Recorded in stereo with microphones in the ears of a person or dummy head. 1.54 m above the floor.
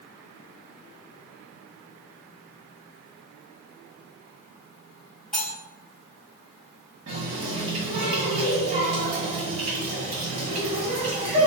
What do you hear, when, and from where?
5.3 s cutlery clinking: 5° left (ahead or behind), 1.6 m
7.1 s a running tap: 40° right (ahead or behind), 1.8 m